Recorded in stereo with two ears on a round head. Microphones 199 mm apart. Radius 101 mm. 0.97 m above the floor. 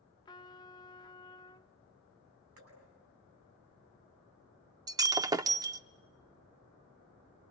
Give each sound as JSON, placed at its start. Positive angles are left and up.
{"t": 0.2, "sound": "a trumpet", "side_deg": 20, "distance_m": 0.6}
{"t": 2.6, "sound": "dripping", "side_deg": -80, "distance_m": 9.0}
{"t": 4.9, "sound": "breaking glass", "side_deg": -15, "distance_m": 0.6}